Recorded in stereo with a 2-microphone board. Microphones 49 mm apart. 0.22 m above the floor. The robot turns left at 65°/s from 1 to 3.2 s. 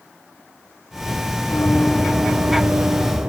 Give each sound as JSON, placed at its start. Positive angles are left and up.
{"t": 1.5, "sound": "running footsteps", "side_deg": 70, "distance_m": 1.3}